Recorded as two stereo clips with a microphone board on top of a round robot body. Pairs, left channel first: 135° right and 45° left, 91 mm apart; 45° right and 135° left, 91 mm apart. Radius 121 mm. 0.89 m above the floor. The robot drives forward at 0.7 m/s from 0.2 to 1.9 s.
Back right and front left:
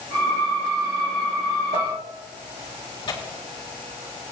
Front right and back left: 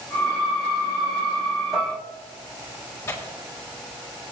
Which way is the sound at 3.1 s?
105° right.